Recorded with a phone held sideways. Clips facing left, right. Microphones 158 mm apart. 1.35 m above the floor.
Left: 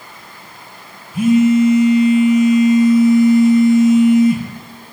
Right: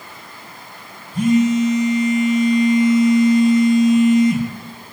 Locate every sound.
1.1 s a phone buzzing: 10° left (ahead or behind), 1.6 m